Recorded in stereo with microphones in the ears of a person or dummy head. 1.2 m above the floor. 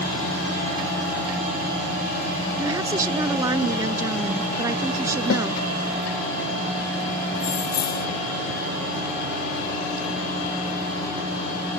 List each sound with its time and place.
2.6 s a woman speaking: 20° right (ahead or behind)
5.3 s a snare drum: 80° left
7.3 s keys jangling: 25° left (ahead or behind)